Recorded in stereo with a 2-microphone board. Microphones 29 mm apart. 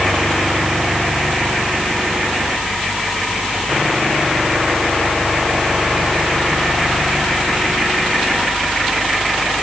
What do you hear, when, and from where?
Only background noise.